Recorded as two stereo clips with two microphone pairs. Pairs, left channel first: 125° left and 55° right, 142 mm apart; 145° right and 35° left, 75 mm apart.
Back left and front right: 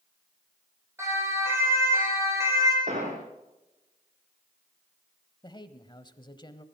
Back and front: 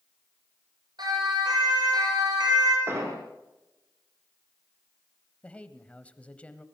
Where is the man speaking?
150° left, 1.1 m.